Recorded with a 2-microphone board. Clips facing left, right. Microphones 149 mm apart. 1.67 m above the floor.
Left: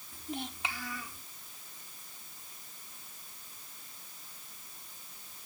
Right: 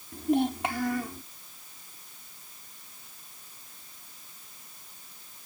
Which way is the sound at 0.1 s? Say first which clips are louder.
Right 15 dB; 60° right (ahead or behind).